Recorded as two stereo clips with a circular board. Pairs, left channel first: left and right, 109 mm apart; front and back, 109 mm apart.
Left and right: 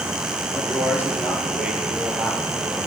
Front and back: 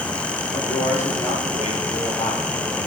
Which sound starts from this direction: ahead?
A man speaking, at 0.5 s.